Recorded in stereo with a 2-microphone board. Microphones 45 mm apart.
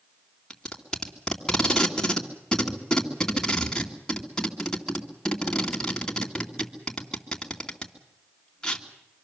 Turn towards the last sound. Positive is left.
turn(degrees=20)  # may be behind; listen again after turning